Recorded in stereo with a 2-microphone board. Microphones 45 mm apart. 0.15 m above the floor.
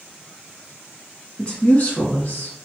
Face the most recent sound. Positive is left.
turn(degrees=45)  # may be behind; listen again after turning